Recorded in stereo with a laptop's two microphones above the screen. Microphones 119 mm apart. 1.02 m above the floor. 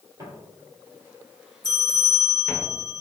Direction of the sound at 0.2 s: 30° right (ahead or behind).